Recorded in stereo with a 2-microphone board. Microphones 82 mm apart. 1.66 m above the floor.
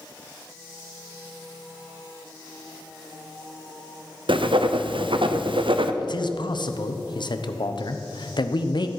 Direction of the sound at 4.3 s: 90° right.